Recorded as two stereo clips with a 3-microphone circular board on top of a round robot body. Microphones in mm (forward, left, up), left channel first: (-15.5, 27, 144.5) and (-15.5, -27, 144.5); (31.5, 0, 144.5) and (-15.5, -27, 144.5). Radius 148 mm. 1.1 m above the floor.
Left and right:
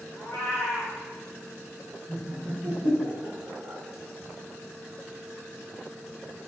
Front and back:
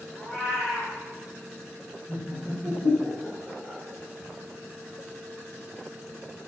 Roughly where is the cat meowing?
Left.